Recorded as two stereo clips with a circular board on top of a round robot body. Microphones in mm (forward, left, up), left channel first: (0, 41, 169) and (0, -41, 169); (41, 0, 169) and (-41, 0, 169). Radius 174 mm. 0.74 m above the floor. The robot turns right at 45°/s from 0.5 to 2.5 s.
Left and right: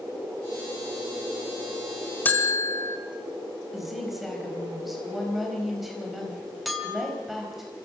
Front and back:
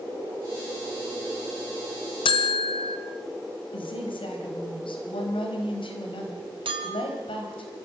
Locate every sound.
2.2 s a bell: 20° left, 0.6 m; by 3.0 s 30° left, 0.6 m
3.7 s a woman speaking: 5° right, 4.5 m
6.7 s a clink: straight behind, 2.5 m